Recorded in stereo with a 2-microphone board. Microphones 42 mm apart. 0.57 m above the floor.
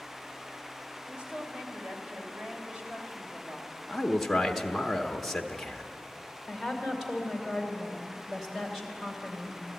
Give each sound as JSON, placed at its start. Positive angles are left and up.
{"t": 1.1, "sound": "a woman speaking", "side_deg": -30, "distance_m": 2.5}
{"t": 3.9, "sound": "a man speaking", "side_deg": 5, "distance_m": 0.8}
{"t": 6.5, "sound": "a woman speaking", "side_deg": -5, "distance_m": 2.5}